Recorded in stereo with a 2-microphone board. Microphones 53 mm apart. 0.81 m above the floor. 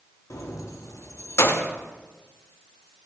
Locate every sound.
0.3 s keys jangling: 70° left (ahead or behind), 0.8 m; by 1.7 s 40° left (ahead or behind), 0.6 m